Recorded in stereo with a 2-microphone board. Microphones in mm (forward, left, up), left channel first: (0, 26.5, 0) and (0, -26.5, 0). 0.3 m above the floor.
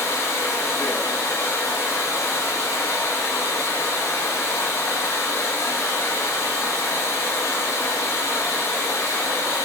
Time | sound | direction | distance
0.0 | running water | 75° left (ahead or behind) | 0.7 m